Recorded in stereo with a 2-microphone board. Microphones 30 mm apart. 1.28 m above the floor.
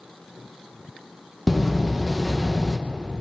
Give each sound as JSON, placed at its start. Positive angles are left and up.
{"t": 1.5, "sound": "a door slam", "side_deg": -5, "distance_m": 0.7}